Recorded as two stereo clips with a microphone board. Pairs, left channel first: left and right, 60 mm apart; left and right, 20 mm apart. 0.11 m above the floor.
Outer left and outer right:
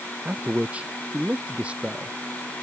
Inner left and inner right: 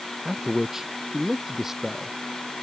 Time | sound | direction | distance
0.2 | a man speaking | 20° right (ahead or behind) | ?